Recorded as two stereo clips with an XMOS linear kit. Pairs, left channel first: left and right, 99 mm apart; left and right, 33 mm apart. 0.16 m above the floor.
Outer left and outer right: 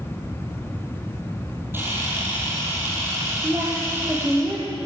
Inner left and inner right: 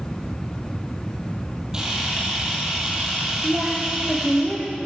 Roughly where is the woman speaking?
Right.